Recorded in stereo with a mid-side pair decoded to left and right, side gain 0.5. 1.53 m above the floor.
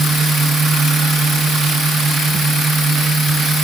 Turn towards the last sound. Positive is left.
turn(degrees=-45)